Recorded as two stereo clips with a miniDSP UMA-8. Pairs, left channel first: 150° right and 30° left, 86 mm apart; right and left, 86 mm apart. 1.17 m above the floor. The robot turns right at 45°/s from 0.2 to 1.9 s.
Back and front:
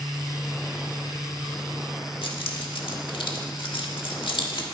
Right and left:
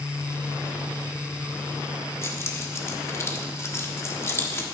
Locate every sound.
2.2 s keys jangling: 145° right, 1.4 m